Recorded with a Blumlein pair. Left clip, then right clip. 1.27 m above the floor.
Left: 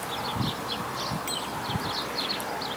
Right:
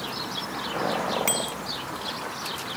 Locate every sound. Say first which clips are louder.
1.3 s a bicycle bell: right 4 dB; 30° right